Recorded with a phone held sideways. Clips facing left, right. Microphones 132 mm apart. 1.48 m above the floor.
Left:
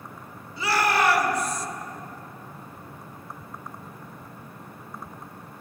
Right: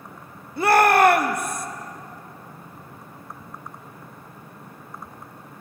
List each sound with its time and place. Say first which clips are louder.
0.6 s a shout: right 8 dB; 50° right (ahead or behind), 0.7 m